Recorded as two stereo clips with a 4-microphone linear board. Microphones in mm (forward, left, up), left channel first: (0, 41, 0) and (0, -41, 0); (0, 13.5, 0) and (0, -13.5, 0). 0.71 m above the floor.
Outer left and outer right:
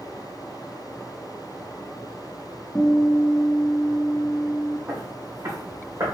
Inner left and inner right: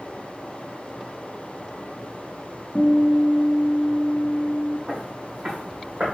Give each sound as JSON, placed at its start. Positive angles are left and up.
{"t": 2.8, "sound": "a guitar", "side_deg": 30, "distance_m": 0.9}
{"t": 4.9, "sound": "footsteps", "side_deg": -35, "distance_m": 2.0}